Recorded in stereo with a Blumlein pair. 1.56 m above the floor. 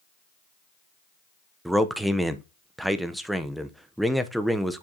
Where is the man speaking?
Straight ahead, 0.7 m.